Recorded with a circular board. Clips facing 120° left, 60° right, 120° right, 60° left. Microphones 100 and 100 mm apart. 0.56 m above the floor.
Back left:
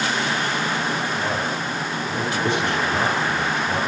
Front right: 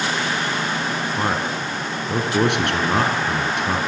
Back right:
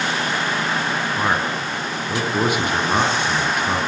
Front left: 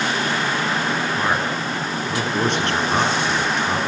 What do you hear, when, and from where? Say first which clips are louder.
1.2 s a man speaking: front right 2 dB, even; 40° right, 6.5 m